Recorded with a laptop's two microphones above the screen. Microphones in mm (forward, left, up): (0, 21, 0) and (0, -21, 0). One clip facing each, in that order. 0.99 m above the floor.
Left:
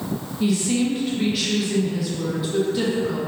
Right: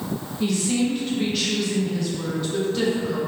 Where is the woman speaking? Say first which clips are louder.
Left 1 dB; 5° left (ahead or behind), 0.7 m.